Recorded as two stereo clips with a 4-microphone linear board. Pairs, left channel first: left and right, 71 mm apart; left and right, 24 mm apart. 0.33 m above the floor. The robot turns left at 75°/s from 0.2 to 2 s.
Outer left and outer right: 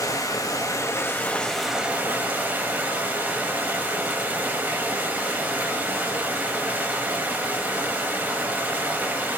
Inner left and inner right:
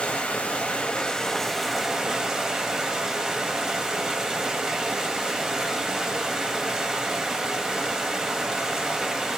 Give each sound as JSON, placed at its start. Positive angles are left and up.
{"t": 0.0, "sound": "running water", "azimuth_deg": 105, "distance_m": 0.7}